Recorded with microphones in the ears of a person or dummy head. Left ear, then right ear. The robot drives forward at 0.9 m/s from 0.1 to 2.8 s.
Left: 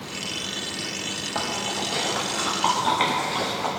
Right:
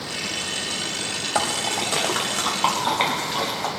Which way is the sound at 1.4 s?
40° right (ahead or behind).